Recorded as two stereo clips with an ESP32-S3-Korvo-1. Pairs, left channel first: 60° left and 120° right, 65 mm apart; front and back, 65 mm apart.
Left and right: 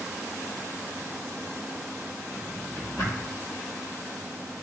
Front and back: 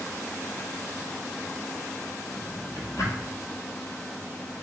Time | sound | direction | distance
2.3 | a drawer | 25° left | 1.4 m